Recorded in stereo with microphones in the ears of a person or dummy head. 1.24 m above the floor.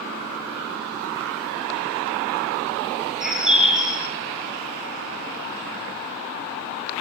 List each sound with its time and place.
3.2 s a bird: 5° right (ahead or behind), 6 m